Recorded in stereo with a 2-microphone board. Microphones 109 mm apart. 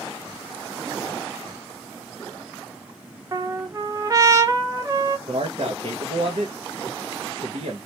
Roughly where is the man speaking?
Right.